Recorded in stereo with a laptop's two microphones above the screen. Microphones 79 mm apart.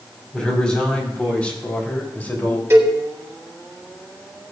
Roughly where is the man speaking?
Centre.